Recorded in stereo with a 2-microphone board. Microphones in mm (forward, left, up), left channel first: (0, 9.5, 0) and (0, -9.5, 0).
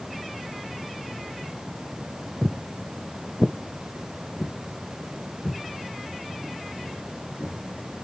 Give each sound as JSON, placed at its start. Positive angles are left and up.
{"t": 2.4, "sound": "footsteps", "side_deg": -35, "distance_m": 0.6}